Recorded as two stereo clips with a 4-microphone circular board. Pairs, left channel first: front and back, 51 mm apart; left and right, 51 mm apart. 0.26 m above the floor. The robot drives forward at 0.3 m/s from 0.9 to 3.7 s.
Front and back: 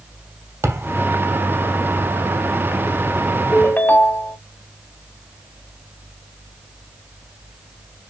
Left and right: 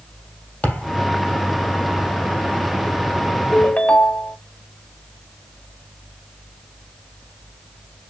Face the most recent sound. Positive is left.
turn(degrees=45)